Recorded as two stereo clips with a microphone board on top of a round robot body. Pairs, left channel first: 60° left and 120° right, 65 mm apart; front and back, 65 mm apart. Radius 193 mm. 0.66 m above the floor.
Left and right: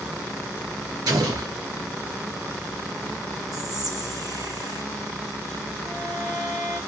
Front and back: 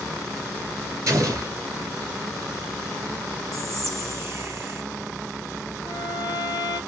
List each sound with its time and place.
1.1 s an explosion: 140° right, 1.5 m
3.5 s whispering: 140° right, 1.6 m
5.8 s a violin: 35° right, 0.5 m